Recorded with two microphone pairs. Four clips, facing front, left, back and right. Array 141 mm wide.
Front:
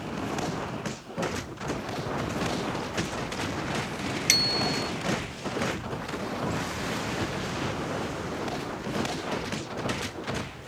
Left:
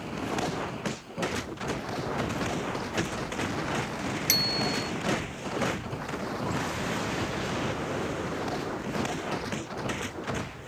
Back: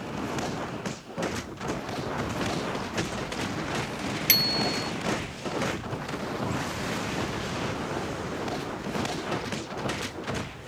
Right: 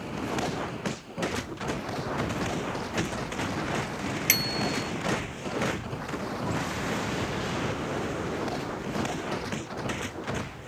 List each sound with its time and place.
4.3 s a bicycle bell: 140° right